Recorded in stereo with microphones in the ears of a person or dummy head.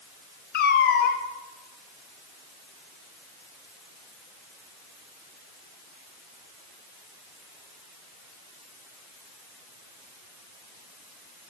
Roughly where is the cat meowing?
Left.